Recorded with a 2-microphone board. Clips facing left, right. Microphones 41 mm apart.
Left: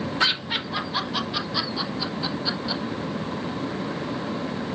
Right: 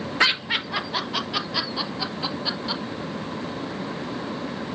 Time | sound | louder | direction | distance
0.2 | laughter | right 4 dB | 60° right (ahead or behind) | 2.5 m